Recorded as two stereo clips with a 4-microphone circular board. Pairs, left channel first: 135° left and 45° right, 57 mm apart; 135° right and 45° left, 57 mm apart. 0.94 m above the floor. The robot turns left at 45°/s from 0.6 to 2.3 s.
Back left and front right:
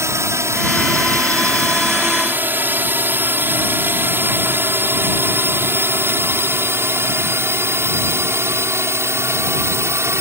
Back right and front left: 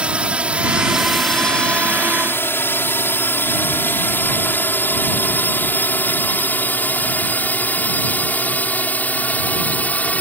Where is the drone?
25° right; by 10.2 s 75° right.